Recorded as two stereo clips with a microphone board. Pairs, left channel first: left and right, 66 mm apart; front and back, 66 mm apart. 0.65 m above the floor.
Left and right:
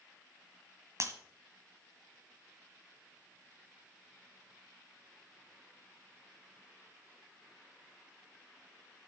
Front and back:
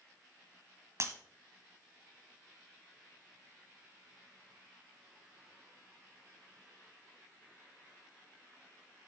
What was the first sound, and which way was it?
Breaking glass, 135° right.